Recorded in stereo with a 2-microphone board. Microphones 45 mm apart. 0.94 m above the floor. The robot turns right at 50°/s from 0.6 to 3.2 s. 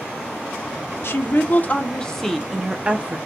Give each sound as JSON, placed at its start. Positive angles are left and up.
{"t": 1.0, "sound": "a woman speaking", "azimuth_deg": 110, "distance_m": 0.6}